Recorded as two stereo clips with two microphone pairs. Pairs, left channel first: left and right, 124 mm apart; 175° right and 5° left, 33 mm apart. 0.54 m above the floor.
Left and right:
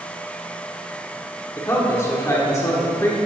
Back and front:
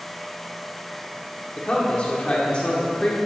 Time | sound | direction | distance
1.6 | a man speaking | 145° left | 1.4 m